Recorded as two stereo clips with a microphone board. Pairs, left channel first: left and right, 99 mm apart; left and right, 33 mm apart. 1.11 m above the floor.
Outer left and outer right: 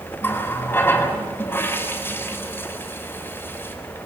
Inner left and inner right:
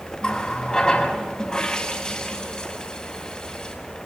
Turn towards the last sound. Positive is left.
turn(degrees=25)  # may be behind; listen again after turning